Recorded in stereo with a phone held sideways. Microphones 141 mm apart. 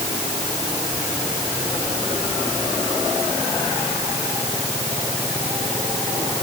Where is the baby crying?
I don't hear a baby crying.